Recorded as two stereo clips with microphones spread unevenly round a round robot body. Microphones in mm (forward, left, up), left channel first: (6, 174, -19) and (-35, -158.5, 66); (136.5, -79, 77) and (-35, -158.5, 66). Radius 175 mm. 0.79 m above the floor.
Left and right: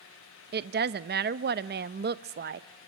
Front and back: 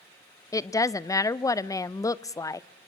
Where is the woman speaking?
40° right, 0.6 m.